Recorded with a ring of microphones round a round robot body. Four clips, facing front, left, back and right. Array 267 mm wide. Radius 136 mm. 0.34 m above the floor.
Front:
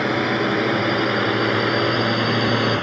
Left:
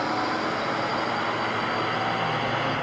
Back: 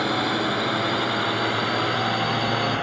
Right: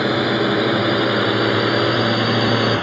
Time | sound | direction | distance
0.0 | a drone | 70° right | ?